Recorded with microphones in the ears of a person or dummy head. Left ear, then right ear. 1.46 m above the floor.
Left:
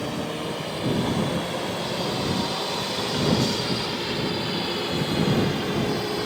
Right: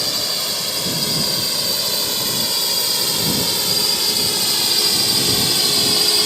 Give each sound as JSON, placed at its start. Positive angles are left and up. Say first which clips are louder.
{"t": 0.0, "sound": "a drone", "louder": "right 9 dB", "side_deg": -75}